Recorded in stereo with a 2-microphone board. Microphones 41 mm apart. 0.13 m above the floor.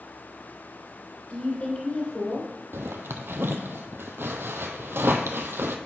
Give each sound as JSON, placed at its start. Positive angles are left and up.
{"t": 1.3, "sound": "a woman speaking", "side_deg": 30, "distance_m": 1.8}
{"t": 2.7, "sound": "a zipper", "side_deg": -70, "distance_m": 0.7}